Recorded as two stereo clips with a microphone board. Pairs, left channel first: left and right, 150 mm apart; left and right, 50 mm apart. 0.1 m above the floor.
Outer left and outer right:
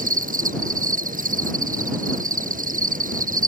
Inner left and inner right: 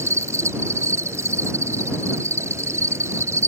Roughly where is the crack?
No crack in this recording.